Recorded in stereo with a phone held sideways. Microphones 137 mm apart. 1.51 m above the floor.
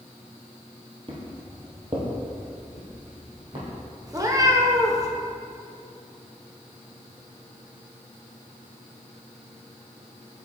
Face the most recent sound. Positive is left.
turn(degrees=-25)  # may be behind; listen again after turning